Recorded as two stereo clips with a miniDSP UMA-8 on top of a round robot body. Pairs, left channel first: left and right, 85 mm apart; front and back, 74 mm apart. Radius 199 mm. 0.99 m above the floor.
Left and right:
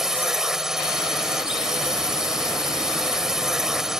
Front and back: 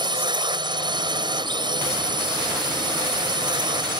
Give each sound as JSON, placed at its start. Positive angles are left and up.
{"t": 0.0, "sound": "a drone", "azimuth_deg": -175}